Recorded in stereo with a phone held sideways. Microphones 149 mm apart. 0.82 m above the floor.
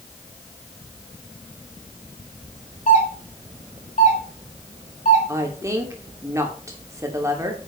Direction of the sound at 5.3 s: 20° right (ahead or behind).